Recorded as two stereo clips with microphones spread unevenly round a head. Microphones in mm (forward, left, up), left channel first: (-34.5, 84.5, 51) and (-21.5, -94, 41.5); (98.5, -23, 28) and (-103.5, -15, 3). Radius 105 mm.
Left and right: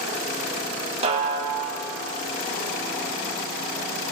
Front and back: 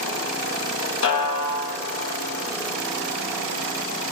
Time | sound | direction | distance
1.0 | a snare drum | 25° right | 1.5 m